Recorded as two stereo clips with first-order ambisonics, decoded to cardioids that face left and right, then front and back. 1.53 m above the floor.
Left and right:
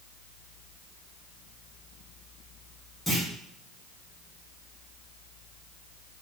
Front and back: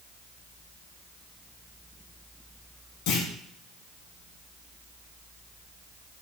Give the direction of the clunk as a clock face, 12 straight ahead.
12 o'clock.